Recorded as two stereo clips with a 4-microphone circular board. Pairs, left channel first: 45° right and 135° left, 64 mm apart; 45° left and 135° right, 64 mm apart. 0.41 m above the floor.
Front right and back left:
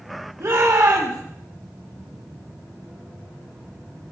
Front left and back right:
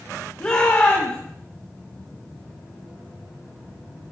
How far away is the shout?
About 4 m.